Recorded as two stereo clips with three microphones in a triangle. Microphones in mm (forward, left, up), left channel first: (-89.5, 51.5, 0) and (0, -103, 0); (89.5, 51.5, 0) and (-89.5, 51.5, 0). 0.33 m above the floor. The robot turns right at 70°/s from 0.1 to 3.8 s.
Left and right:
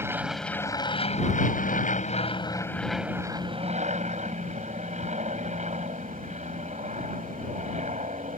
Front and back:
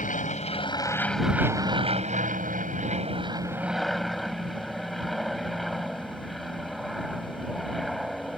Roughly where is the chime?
I don't hear a chime.